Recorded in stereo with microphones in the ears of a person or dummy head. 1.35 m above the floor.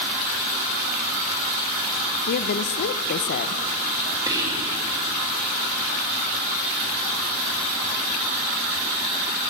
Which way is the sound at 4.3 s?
15° right (ahead or behind).